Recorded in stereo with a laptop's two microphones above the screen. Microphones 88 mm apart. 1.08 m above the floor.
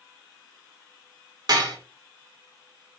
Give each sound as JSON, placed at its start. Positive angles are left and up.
{"t": 1.5, "sound": "dishes clattering", "side_deg": -55, "distance_m": 1.9}